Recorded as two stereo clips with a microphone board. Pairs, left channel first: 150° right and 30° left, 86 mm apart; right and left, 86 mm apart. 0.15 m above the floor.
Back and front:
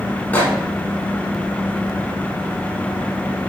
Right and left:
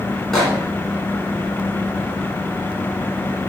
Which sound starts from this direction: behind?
A microwave, at 0.3 s.